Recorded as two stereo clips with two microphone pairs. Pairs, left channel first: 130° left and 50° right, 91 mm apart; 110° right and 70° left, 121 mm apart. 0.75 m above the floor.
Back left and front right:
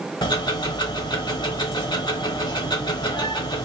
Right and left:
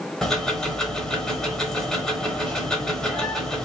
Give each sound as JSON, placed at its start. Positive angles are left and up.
{"t": 0.2, "sound": "ticking", "azimuth_deg": 165, "distance_m": 1.0}